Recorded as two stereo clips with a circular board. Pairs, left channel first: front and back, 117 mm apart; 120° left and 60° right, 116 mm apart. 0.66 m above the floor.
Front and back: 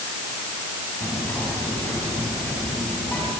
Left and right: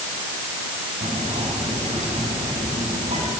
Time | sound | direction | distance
1.0 | whispering | 75° right | 5.5 m